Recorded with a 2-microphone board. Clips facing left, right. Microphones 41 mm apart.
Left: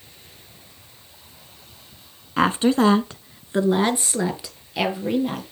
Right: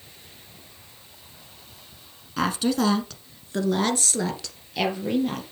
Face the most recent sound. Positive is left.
turn(degrees=10)  # may be behind; listen again after turning